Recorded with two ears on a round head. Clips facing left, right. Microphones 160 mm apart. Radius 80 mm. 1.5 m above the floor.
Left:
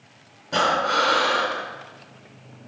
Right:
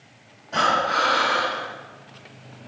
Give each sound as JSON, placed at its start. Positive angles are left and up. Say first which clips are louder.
{"t": 0.5, "sound": "breathing", "louder": "left 1 dB", "side_deg": 60, "distance_m": 2.5}